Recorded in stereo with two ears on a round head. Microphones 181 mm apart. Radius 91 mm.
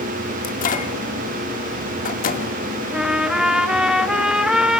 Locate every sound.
0.4 s a microwave: 45° left (ahead or behind), 1.7 m
2.9 s a trumpet: 5° right (ahead or behind), 0.8 m